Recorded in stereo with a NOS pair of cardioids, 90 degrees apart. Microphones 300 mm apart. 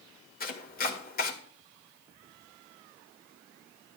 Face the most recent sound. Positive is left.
turn(degrees=30)